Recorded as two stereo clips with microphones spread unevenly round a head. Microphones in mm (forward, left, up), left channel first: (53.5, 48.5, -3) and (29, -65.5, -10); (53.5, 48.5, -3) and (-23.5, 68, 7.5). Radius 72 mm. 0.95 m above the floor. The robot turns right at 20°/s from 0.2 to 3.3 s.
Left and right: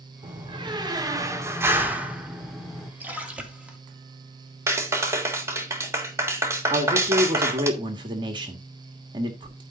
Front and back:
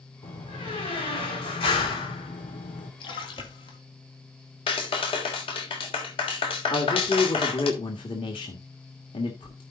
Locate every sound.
0.2 s a door slam: 60° right, 2 m; by 2.9 s 5° right, 2 m
3.0 s a splash: 30° right, 2.5 m; by 3.8 s 25° right, 2.5 m
4.7 s a clap: 35° right, 3 m
6.7 s a man speaking: 55° right, 1.6 m